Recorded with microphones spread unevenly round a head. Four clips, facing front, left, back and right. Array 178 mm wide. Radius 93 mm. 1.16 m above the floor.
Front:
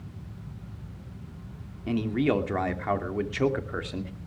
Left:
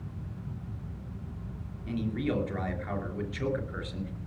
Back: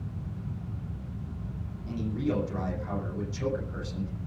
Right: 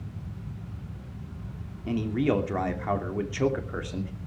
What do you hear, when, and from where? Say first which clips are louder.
1.9 s a man speaking: right 6 dB, front 6 dB; 30° right, 2.5 m